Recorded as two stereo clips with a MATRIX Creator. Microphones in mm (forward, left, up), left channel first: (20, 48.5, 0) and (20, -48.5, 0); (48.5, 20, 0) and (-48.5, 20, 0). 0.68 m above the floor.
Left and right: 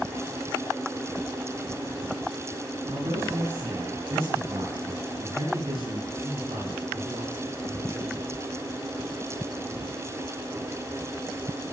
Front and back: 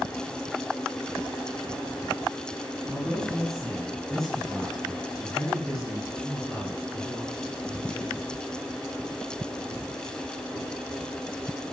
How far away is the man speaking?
About 8.5 m.